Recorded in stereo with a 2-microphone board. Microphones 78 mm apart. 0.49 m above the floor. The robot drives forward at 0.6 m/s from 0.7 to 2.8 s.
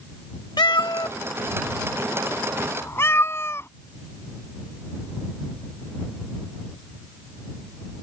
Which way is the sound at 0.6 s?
75° left (ahead or behind).